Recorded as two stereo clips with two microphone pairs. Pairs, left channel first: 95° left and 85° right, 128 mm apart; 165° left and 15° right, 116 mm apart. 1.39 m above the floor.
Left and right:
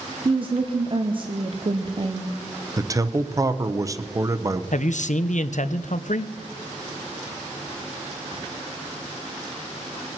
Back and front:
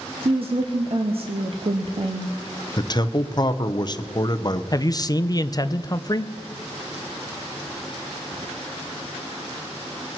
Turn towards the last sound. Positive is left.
turn(degrees=110)